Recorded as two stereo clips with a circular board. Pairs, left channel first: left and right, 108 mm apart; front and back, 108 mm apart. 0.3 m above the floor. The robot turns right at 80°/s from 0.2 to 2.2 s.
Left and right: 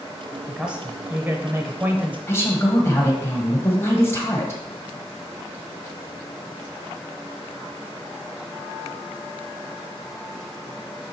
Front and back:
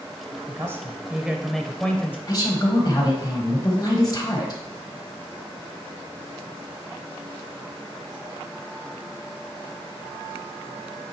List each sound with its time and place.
0.5 s a man speaking: 175° right, 0.9 m; by 2.2 s 35° right, 0.9 m
2.3 s a woman speaking: 35° left, 1.6 m